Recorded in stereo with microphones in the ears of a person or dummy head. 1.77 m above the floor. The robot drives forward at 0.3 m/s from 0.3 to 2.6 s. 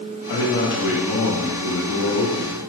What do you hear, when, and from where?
0.3 s a man speaking: 60° left (ahead or behind), 0.7 m